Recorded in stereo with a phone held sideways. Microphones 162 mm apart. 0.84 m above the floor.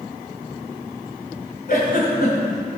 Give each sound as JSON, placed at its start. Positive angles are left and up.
{"t": 1.7, "sound": "a giggle", "side_deg": 65, "distance_m": 1.9}